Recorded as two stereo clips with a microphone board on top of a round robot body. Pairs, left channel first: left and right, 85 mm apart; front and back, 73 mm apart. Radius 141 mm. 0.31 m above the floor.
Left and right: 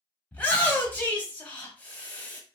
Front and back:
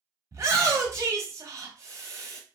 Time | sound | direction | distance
0.3 | a shout | 155° left | 1.3 m